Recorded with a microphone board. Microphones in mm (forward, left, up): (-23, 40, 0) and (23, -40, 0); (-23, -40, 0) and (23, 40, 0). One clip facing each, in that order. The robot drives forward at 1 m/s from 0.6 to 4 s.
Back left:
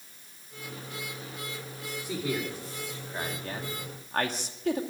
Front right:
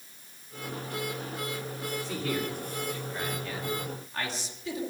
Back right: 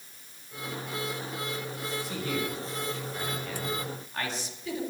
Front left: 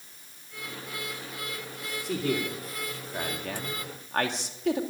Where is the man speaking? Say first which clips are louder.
Back left 2 dB, front left 6 dB; 45° left, 3 m; by 4.8 s 85° left, 2.0 m.